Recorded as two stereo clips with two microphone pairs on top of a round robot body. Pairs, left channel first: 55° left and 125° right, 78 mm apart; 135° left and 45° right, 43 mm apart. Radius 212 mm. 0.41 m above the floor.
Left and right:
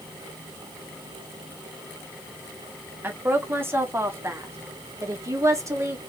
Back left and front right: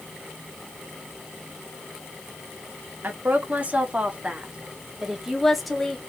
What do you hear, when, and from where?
3.0 s a woman speaking: 70° right, 2.0 m; by 6.0 s 140° right, 1.8 m